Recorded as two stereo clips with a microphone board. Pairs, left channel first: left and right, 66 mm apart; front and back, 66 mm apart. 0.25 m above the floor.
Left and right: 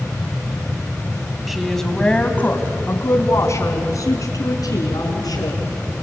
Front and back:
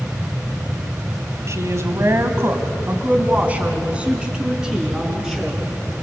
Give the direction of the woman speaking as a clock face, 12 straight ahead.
6 o'clock.